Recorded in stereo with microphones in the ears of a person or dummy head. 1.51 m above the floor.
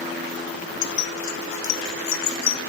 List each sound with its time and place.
0.8 s keys jangling: 70° left (ahead or behind), 0.9 m; by 2.6 s 60° left (ahead or behind), 1.9 m